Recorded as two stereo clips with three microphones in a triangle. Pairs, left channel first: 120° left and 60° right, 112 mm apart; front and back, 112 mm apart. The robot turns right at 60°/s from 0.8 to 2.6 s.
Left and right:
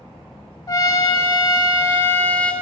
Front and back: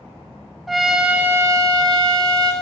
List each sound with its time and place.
0.7 s a trumpet: 95° left, 0.5 m; by 2.5 s 165° right, 0.5 m